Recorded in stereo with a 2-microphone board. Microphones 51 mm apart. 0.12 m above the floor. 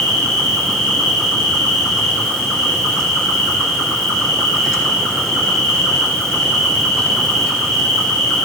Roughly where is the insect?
Centre.